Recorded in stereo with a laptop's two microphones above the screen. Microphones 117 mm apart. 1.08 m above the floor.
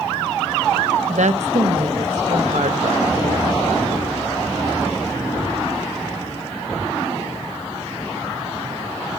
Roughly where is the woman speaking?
Right.